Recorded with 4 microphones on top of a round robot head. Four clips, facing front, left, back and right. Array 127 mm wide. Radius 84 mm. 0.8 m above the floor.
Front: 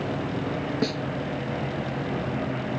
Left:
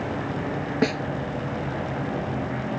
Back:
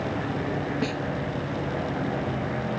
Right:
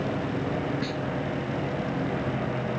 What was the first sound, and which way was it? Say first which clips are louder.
A snare drum: left 7 dB, front 1 dB; 80° left.